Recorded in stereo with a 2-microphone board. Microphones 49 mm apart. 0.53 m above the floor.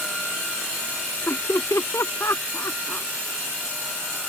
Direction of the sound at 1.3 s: 75° left (ahead or behind).